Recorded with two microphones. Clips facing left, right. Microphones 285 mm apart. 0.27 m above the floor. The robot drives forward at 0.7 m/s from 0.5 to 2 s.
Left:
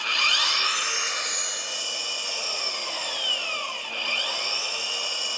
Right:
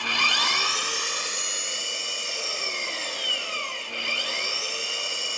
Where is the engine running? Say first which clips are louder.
Right 4 dB; 60° right (ahead or behind), 0.8 m; by 5.4 s 25° right (ahead or behind), 1.6 m.